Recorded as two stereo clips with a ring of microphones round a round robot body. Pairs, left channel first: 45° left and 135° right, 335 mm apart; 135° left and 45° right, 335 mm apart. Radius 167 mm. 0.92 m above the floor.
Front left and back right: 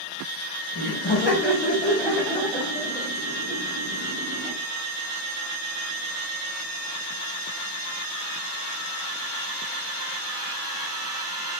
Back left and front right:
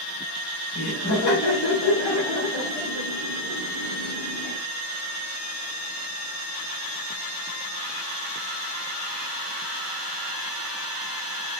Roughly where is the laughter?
Left.